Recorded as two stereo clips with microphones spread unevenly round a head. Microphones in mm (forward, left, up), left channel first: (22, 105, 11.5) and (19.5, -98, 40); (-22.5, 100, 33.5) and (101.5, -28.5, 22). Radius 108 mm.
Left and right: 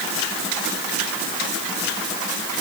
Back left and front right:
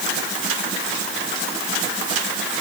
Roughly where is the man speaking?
No man speaking in this recording.